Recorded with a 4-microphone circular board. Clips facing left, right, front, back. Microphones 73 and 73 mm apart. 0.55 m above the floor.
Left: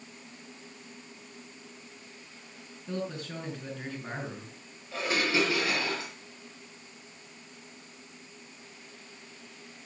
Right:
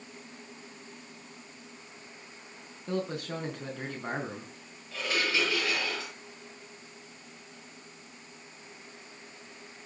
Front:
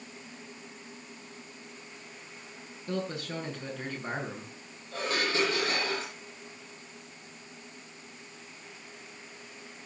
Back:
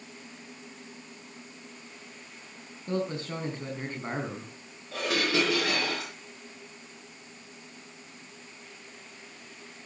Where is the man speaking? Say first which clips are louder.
Right 3 dB, back 3 dB; 120° right, 4.5 m.